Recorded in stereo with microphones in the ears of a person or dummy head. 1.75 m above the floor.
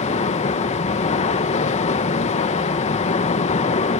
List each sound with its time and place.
0.0 s running water: 35° left (ahead or behind), 1.2 m